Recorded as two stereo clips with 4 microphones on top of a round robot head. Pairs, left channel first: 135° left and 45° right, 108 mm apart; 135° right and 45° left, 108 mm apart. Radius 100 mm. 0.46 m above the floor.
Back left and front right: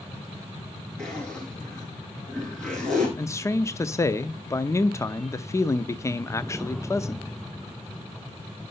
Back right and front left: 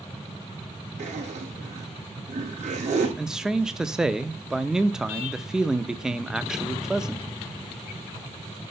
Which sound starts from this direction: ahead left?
A zipper, at 1.0 s.